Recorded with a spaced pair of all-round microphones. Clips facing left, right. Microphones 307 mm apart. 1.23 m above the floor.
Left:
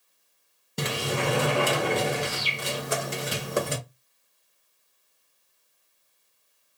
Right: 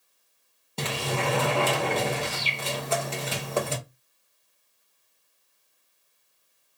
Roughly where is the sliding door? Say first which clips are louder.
Left 1 dB; centre.